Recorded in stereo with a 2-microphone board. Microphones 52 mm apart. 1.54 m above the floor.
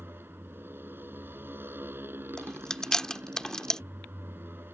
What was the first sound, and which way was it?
A motorcycle, 40° right (ahead or behind).